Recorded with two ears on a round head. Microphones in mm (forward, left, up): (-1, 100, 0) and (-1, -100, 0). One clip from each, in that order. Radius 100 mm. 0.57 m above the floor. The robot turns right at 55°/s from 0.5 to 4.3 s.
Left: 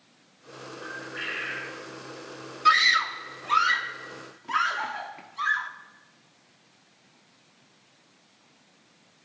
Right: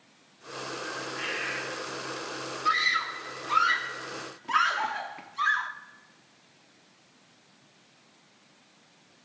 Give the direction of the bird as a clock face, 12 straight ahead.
10 o'clock.